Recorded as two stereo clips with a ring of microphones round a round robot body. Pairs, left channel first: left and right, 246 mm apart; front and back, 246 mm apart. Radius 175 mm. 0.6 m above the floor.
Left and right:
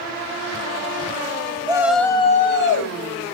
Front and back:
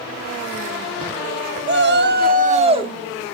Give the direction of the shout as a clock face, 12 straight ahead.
5 o'clock.